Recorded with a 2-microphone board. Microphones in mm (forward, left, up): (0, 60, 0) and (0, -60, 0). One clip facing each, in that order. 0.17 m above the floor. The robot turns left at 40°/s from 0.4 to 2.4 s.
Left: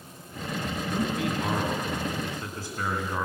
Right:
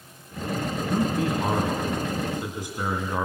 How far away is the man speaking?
About 2.0 m.